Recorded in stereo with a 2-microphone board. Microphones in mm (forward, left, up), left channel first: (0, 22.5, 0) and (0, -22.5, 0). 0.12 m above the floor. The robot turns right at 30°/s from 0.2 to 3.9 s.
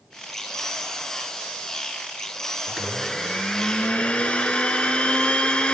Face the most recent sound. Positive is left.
turn(degrees=40)